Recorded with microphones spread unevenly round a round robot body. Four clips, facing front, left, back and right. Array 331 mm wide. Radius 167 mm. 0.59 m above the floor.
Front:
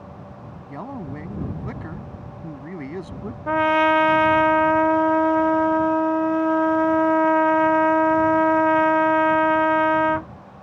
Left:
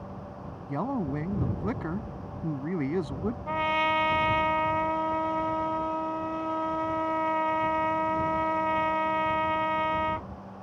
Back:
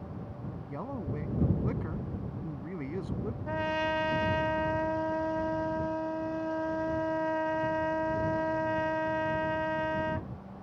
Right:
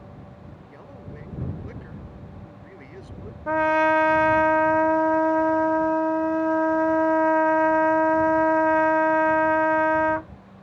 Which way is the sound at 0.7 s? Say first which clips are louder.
Left 15 dB, front 5 dB; 65° left.